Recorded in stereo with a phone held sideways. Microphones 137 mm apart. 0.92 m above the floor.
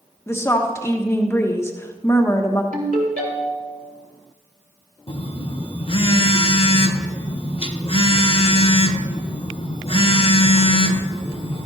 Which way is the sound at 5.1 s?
45° left (ahead or behind).